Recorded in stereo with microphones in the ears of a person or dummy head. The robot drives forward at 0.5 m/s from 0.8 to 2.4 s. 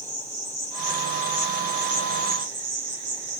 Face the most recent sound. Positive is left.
turn(degrees=-70)  # may be behind; listen again after turning